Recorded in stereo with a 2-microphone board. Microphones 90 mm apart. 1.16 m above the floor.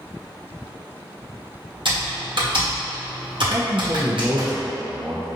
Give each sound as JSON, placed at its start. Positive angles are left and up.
{"t": 1.9, "sound": "typing on a keyboard", "side_deg": -65, "distance_m": 1.5}
{"t": 3.5, "sound": "a man speaking", "side_deg": -40, "distance_m": 0.6}